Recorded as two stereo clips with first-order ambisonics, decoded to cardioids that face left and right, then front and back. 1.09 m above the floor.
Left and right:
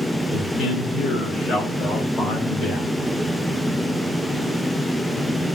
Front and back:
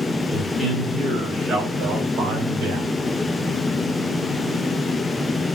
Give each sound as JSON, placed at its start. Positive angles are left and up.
{"t": 0.3, "sound": "a man speaking", "azimuth_deg": 75, "distance_m": 1.7}